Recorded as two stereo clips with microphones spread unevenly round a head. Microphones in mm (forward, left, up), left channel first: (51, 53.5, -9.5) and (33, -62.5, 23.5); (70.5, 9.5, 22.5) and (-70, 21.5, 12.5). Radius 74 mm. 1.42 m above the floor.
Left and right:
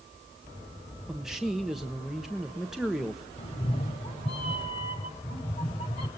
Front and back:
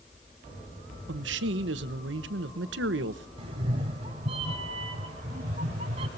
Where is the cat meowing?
135° left, 1.6 m.